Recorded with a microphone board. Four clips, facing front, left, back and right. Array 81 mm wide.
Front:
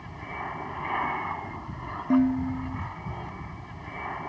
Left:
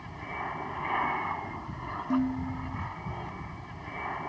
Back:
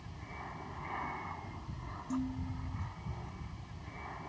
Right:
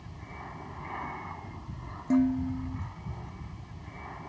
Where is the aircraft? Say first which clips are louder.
Left 8 dB, front 11 dB; 40° left.